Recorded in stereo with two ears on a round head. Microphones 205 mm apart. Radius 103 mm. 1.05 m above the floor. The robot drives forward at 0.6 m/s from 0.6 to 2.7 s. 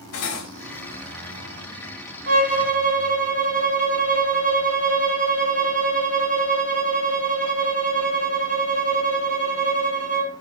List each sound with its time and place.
0.1 s cutlery clinking: 75° left (ahead or behind), 2.5 m
2.3 s a violin: 40° right (ahead or behind), 2.0 m; by 10.3 s 35° right (ahead or behind), 2 m